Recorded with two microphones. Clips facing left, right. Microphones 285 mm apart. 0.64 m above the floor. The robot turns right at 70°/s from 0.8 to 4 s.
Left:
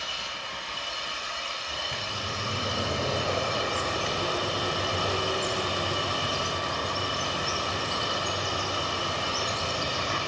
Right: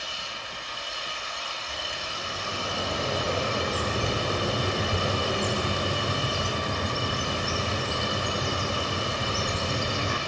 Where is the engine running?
110° left, 5.5 m; by 10.3 s 30° right, 5.5 m.